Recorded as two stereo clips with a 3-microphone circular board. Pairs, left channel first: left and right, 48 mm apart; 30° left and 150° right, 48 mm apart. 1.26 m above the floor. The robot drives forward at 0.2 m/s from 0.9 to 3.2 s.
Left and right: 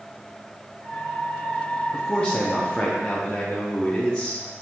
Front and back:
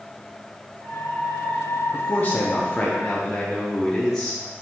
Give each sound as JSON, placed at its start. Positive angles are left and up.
{"t": 1.9, "sound": "a man speaking", "azimuth_deg": 45, "distance_m": 0.6}